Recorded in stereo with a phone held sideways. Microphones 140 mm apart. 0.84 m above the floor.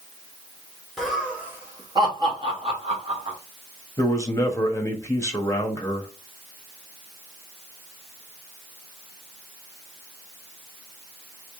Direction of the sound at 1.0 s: Centre (ahead or behind).